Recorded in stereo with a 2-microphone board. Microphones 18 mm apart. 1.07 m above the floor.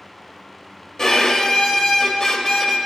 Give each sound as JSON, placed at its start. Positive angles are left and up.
{"t": 1.0, "sound": "a violin", "side_deg": 30, "distance_m": 1.0}